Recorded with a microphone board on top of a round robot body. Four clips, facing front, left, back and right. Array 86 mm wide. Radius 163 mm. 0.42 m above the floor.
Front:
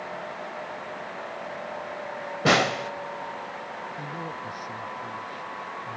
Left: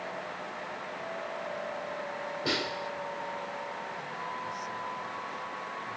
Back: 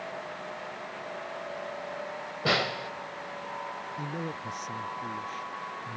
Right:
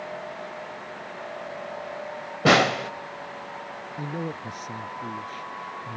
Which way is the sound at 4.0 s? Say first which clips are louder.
Right 5 dB, front 1 dB; 105° right.